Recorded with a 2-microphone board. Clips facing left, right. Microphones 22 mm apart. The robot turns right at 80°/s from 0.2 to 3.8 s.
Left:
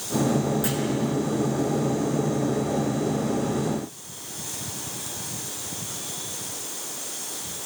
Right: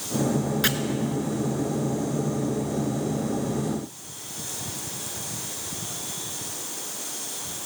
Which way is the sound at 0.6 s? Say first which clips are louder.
Right 4 dB; 60° right (ahead or behind).